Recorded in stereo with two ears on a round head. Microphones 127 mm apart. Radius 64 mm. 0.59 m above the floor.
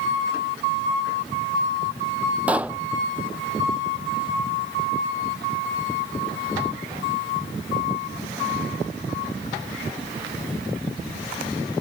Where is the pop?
10° right (ahead or behind).